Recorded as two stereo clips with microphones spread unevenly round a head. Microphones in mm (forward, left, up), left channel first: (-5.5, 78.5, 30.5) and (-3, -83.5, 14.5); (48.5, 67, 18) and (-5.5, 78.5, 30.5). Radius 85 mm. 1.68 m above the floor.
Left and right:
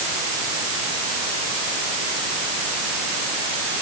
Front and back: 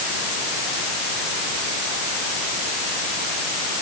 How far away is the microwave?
No microwave in this recording.